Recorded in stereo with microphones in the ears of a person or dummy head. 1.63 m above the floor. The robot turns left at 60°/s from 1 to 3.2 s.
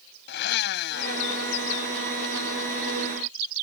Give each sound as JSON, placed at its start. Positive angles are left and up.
{"t": 0.3, "sound": "a blender", "azimuth_deg": 60}